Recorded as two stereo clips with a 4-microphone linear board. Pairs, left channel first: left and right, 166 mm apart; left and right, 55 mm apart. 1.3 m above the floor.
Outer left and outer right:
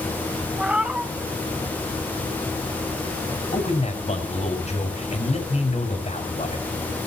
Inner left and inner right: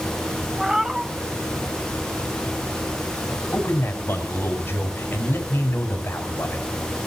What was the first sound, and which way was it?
A cat meowing, 5° right (ahead or behind).